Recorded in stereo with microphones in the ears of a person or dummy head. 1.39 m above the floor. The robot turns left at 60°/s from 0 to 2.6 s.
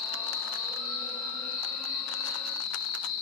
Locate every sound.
0.0 s an insect: 5° right, 1.5 m; by 3.2 s 160° right, 1.5 m